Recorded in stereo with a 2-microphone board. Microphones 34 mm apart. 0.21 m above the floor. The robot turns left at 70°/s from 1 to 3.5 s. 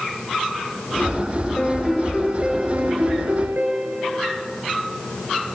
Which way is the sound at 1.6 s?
30° left.